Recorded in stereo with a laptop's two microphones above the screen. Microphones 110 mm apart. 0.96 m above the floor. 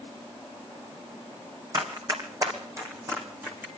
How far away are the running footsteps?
About 2.5 m.